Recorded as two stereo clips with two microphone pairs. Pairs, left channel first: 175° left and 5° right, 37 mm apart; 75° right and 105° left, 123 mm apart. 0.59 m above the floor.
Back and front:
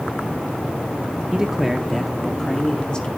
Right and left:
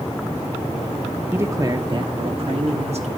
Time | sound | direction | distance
1.3 | a man speaking | 50° left | 0.7 m